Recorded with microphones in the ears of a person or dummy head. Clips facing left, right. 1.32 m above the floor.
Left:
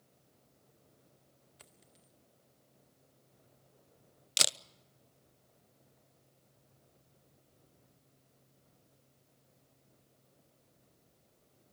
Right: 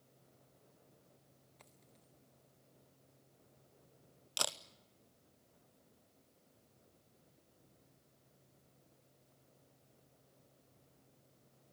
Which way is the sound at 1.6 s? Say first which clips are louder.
Left 1 dB; 10° left (ahead or behind).